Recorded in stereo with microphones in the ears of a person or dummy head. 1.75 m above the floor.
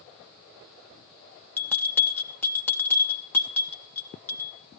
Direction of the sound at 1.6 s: 5° left (ahead or behind).